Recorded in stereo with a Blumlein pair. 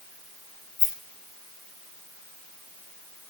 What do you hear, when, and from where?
0.8 s a rattle: 40° left, 3.5 m